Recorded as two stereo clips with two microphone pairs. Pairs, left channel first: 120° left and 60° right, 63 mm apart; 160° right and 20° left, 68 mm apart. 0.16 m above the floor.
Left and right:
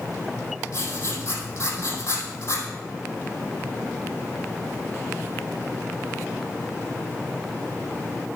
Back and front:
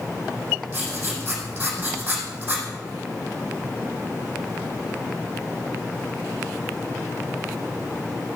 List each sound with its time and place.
0.7 s writing: 85° left, 3.5 m